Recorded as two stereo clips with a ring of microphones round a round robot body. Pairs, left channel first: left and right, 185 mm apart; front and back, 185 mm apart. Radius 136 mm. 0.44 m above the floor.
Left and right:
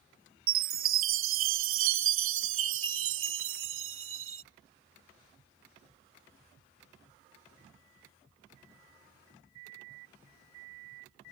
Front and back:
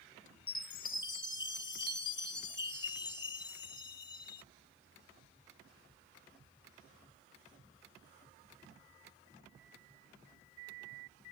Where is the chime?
75° right.